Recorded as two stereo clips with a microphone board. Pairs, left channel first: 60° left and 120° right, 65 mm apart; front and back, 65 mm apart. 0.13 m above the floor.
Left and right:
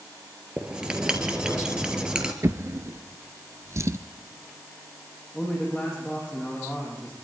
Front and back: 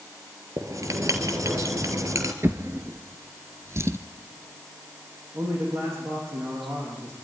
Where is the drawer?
145° right, 1.0 m.